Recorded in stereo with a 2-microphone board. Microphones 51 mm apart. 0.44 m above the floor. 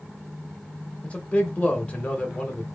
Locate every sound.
1.0 s a man speaking: 25° left (ahead or behind), 0.8 m